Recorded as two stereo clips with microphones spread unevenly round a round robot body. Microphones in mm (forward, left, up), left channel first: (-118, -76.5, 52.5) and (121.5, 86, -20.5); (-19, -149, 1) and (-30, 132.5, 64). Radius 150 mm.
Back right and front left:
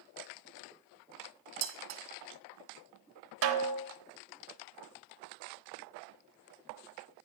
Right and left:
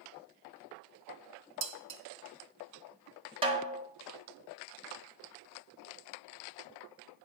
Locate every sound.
1.6 s dishes clattering: 60° left, 1.0 m
3.4 s a snare drum: 15° left, 1.0 m